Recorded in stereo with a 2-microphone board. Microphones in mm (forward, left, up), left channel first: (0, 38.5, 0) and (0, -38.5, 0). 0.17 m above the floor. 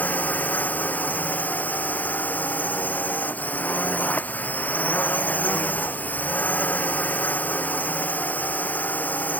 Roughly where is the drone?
Left.